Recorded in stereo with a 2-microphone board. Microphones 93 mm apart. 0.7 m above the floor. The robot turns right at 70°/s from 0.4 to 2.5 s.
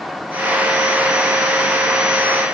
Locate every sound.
Only background noise.